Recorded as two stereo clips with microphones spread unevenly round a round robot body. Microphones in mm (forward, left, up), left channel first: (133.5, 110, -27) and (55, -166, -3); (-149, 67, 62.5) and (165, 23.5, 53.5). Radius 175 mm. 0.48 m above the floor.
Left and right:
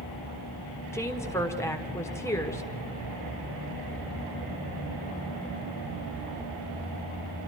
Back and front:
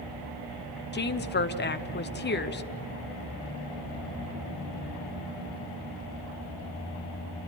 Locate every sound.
0.9 s a woman speaking: 145° left, 1.5 m